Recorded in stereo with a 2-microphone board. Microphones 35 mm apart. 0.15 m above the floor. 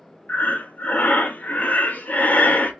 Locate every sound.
0.3 s breathing: 45° left (ahead or behind), 0.5 m